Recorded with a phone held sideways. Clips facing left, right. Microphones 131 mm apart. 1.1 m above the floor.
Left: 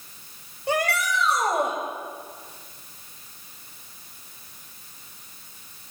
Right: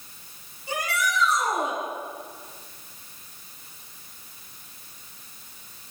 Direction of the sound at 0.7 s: 70° left (ahead or behind).